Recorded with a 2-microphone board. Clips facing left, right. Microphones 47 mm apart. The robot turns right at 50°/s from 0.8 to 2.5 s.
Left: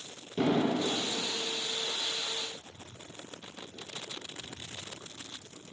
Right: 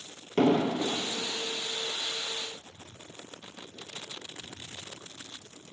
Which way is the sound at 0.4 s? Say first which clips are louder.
Right 3 dB; 65° right (ahead or behind).